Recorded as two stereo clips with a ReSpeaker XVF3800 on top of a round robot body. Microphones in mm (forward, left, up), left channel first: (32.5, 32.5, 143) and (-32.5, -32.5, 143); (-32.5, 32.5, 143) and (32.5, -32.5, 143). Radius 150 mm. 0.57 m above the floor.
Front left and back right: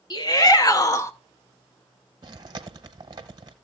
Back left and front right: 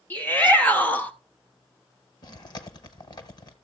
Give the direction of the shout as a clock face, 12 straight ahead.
10 o'clock.